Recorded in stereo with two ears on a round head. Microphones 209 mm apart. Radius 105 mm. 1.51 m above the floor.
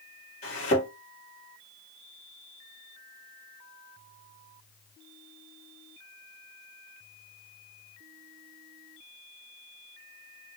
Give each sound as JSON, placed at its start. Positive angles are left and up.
{"t": 0.4, "sound": "a thud", "side_deg": 35, "distance_m": 1.9}